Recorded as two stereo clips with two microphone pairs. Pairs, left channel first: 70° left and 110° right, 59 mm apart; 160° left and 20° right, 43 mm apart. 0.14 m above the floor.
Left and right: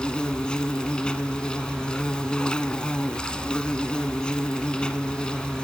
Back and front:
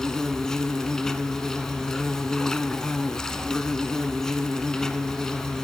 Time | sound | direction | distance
0.0 | an insect | 115° left | 0.9 m